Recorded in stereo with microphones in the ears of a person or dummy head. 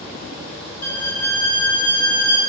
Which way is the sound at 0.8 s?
10° left (ahead or behind).